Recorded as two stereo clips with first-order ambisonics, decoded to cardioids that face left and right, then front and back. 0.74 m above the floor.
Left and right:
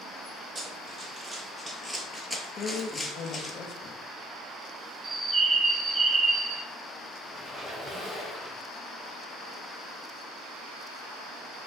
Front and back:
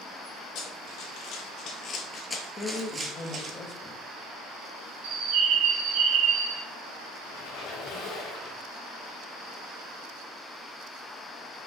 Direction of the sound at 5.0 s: 160° right.